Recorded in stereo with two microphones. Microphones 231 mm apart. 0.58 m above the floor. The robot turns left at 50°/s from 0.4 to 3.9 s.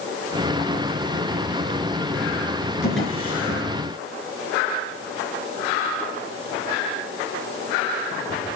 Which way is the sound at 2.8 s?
55° left (ahead or behind).